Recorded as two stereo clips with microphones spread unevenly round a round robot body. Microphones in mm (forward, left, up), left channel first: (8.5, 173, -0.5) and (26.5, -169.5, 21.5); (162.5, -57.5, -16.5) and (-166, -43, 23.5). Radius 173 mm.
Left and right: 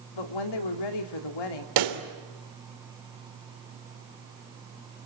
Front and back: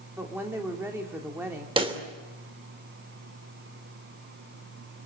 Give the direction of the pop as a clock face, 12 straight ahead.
4 o'clock.